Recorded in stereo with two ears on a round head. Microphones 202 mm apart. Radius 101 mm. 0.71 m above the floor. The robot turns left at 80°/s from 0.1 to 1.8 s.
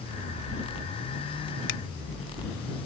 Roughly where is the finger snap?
Left.